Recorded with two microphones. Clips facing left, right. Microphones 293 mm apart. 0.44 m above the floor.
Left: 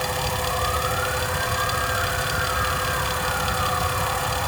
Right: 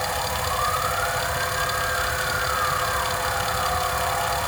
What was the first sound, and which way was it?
Only background noise.